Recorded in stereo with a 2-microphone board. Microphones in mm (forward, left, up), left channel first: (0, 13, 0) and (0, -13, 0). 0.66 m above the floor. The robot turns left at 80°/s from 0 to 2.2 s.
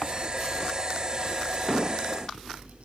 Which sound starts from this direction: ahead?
An explosion, at 1.7 s.